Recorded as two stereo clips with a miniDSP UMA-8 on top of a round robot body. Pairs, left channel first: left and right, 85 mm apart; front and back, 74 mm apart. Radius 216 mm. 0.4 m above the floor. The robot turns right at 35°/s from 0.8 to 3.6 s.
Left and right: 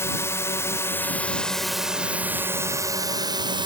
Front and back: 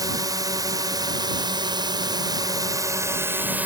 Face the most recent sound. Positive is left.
turn(degrees=-115)